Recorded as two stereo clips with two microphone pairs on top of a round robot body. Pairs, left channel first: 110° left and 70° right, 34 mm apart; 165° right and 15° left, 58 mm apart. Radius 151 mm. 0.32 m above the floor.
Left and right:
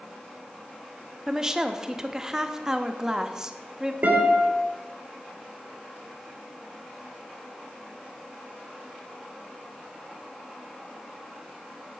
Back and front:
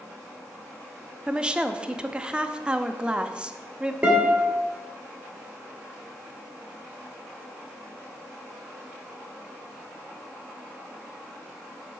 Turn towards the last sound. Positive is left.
turn(degrees=-50)